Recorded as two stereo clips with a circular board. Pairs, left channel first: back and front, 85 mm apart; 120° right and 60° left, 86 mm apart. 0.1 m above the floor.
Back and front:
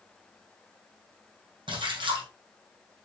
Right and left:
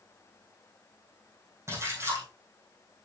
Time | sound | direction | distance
1.7 | a splash | 5° left | 2.5 m